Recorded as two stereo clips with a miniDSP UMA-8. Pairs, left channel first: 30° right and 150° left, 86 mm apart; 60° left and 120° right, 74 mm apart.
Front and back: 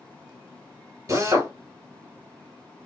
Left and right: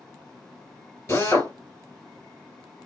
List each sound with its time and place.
1.1 s a drill: 105° left, 3 m